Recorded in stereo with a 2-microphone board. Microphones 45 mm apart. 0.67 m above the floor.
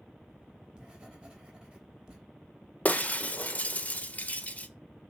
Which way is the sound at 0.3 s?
15° right (ahead or behind).